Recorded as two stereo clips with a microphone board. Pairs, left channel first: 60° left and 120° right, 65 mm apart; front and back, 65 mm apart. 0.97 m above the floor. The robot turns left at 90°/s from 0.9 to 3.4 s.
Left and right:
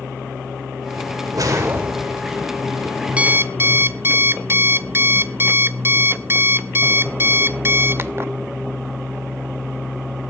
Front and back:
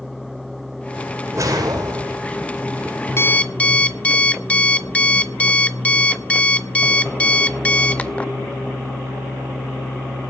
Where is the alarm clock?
50° right, 0.8 m; by 8.3 s 70° right, 0.8 m.